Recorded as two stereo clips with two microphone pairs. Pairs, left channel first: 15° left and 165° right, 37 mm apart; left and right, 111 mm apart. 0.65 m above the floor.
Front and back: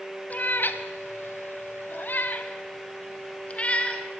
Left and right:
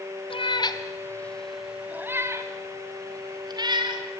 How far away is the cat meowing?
About 1.4 m.